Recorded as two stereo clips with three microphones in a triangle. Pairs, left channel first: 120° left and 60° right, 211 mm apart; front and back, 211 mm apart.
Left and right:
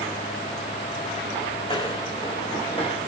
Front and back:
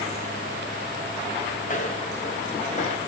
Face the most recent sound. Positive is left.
turn(degrees=55)